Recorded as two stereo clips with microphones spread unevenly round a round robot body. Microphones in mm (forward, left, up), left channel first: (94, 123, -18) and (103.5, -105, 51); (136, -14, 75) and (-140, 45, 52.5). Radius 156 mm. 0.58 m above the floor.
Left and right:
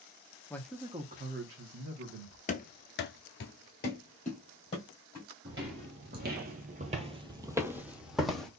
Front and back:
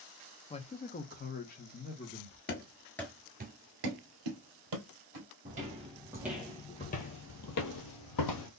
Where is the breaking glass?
I don't hear breaking glass.